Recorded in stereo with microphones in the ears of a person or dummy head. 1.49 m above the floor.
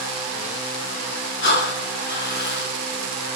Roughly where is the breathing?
Left.